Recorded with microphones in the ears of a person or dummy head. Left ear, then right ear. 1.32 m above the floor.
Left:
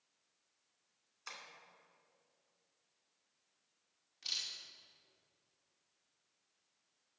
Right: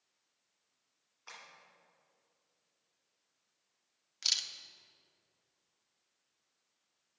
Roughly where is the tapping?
Left.